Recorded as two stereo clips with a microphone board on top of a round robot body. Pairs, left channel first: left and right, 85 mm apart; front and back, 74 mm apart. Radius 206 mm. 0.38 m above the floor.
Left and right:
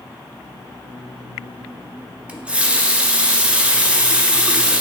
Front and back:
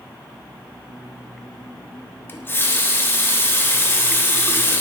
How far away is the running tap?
About 0.6 m.